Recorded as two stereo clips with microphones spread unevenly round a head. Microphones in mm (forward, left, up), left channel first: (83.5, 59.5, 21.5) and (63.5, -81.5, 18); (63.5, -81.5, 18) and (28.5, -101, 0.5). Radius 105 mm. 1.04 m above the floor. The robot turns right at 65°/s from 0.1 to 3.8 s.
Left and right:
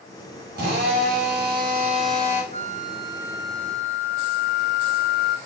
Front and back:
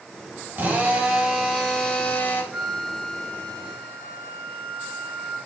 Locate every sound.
0.6 s a drill: 145° right, 5 m; by 2.4 s 20° right, 5 m
2.5 s a flute: 70° right, 3 m; by 5.4 s 15° left, 3 m